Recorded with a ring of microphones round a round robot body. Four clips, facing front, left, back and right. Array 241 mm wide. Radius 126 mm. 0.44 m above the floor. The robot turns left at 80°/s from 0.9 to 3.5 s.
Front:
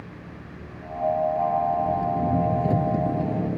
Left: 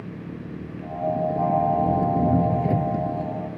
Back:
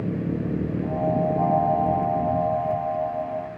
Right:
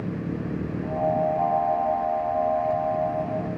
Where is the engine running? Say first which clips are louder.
Right 6 dB, back 15 dB; 165° right; by 3.6 s 15° right.